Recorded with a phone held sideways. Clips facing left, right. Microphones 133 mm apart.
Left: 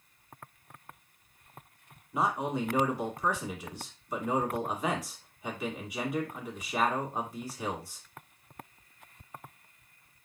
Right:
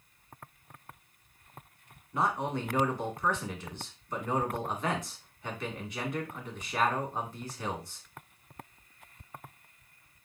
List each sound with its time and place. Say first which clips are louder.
2.1 s a man speaking: left 1 dB; 10° left (ahead or behind), 1.9 m